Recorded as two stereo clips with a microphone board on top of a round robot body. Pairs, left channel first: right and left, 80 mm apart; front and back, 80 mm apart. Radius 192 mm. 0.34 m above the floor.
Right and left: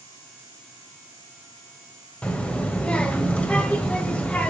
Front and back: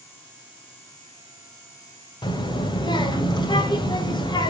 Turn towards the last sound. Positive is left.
turn(degrees=-15)